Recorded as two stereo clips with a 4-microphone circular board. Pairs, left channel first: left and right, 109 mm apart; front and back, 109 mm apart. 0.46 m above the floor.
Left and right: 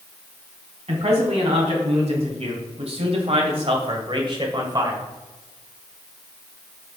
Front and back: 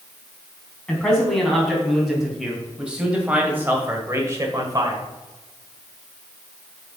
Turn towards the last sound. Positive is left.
turn(degrees=-140)